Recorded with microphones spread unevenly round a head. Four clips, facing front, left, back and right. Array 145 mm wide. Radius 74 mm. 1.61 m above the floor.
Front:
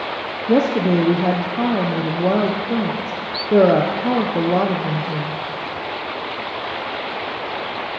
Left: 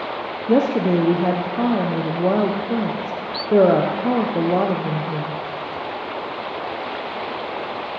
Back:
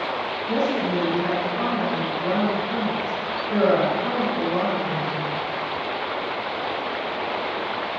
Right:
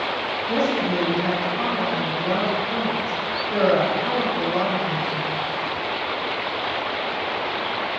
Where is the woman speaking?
40° left, 0.8 m.